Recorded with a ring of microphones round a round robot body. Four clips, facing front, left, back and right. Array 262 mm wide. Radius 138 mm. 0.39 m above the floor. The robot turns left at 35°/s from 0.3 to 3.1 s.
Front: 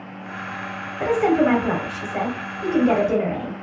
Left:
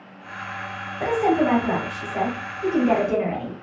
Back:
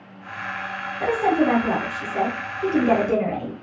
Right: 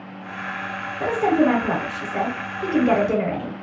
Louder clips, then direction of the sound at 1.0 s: Right 1 dB, front 2 dB; 15° right.